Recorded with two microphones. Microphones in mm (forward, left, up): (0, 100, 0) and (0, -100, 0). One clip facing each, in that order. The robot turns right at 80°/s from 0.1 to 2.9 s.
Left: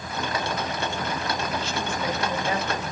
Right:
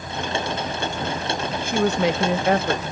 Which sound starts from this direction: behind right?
A woman speaking, at 1.6 s.